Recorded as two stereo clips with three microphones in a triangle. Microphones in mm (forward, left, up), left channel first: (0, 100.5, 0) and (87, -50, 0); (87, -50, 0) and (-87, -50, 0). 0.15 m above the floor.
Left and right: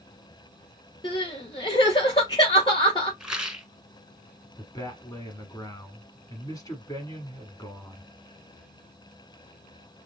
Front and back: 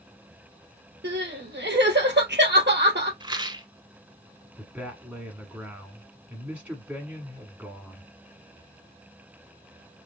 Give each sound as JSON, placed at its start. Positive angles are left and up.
{"t": 1.0, "sound": "crying", "azimuth_deg": 180, "distance_m": 2.5}
{"t": 3.2, "sound": "a rattle", "azimuth_deg": -140, "distance_m": 0.9}
{"t": 4.6, "sound": "a man speaking", "azimuth_deg": 115, "distance_m": 1.5}